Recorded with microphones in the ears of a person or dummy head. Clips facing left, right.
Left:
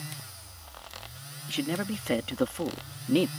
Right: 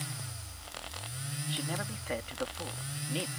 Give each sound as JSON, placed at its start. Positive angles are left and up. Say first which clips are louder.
{"t": 1.5, "sound": "a man speaking", "louder": "left 9 dB", "side_deg": 30}